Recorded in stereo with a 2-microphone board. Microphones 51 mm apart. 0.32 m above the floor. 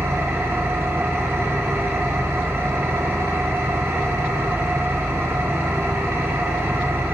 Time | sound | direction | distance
0.0 | an engine running | 55° right (ahead or behind) | 2 m